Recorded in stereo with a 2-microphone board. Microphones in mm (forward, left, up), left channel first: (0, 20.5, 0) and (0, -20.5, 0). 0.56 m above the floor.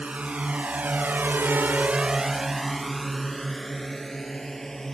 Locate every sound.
0.0 s a drone: 30° right (ahead or behind); by 4.9 s 10° left (ahead or behind)